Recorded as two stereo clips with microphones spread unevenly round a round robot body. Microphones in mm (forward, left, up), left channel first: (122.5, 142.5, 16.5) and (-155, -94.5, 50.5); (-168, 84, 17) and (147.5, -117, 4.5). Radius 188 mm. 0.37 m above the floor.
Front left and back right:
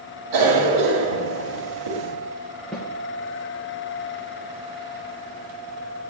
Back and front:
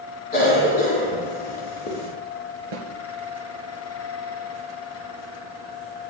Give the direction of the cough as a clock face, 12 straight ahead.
5 o'clock.